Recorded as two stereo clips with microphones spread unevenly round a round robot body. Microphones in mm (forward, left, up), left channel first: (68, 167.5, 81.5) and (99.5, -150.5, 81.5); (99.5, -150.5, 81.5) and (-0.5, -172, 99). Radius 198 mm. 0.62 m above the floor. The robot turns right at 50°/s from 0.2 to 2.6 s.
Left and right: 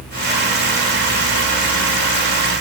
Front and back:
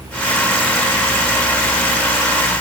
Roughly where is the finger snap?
I don't hear a finger snap.